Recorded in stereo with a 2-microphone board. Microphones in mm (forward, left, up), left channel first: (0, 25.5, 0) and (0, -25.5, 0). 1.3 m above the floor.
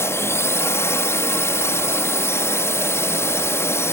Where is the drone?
65° left (ahead or behind).